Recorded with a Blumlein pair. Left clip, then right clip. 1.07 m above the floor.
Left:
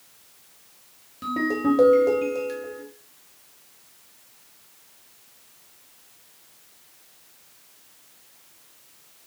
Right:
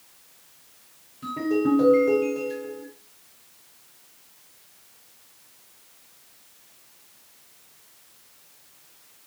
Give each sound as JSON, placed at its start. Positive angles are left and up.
{"t": 1.2, "sound": "a ringtone", "azimuth_deg": 40, "distance_m": 1.0}